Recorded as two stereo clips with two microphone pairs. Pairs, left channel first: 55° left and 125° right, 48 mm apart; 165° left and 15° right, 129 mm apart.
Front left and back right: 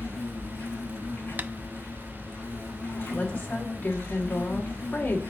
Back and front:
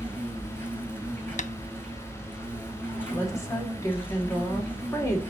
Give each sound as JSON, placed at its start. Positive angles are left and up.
{"t": 0.0, "sound": "an insect", "azimuth_deg": 90, "distance_m": 6.0}
{"t": 1.4, "sound": "tapping", "azimuth_deg": -175, "distance_m": 0.5}
{"t": 3.1, "sound": "a woman speaking", "azimuth_deg": 100, "distance_m": 2.5}